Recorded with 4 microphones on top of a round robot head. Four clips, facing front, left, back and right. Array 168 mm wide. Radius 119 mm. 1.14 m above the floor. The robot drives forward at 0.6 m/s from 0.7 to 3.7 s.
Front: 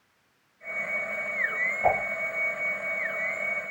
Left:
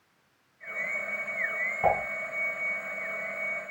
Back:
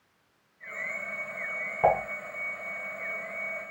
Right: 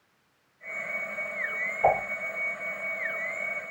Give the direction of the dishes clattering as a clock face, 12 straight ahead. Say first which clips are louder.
Right 2 dB, back 2 dB; 6 o'clock.